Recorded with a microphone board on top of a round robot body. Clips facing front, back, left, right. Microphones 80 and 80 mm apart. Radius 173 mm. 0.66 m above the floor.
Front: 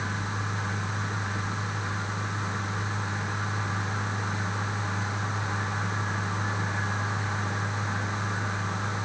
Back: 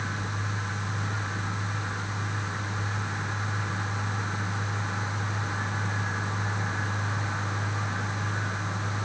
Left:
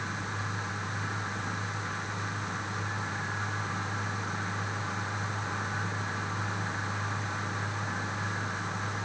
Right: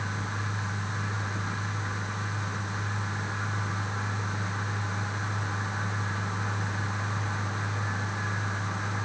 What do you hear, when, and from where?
Only background noise.